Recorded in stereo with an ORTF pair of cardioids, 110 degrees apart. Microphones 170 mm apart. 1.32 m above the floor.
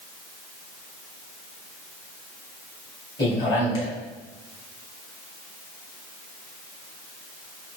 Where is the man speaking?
25° left, 2 m.